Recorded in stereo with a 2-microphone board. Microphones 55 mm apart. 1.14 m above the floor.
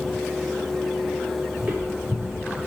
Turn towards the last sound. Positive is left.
turn(degrees=-30)  # may be behind; listen again after turning